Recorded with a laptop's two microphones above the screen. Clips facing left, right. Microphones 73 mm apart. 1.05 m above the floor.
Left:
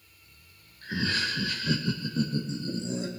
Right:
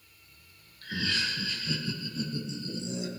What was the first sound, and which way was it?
Laughter, 20° left (ahead or behind).